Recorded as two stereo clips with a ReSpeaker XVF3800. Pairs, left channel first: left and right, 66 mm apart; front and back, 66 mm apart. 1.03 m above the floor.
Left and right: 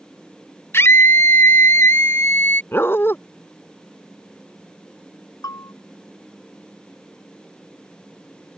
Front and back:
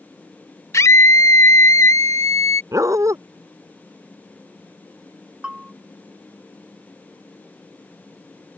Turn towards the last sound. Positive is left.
turn(degrees=105)